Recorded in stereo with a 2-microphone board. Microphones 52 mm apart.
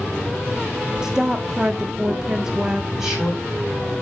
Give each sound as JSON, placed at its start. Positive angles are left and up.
{"t": 1.0, "sound": "a woman speaking", "side_deg": -15, "distance_m": 0.6}
{"t": 2.9, "sound": "a man speaking", "side_deg": -10, "distance_m": 4.0}